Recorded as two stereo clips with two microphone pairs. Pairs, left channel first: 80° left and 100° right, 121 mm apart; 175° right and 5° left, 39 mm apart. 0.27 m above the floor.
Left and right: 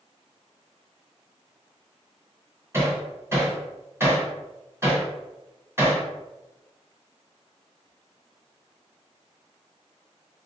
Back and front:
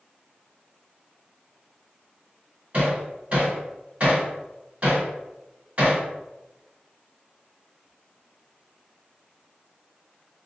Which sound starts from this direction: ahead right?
Hammering, at 2.7 s.